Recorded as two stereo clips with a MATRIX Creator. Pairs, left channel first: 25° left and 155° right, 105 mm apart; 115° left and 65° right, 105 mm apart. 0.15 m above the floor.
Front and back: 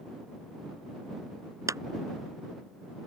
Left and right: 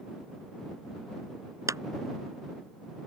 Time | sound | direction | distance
1.7 | a clap | 110° right | ?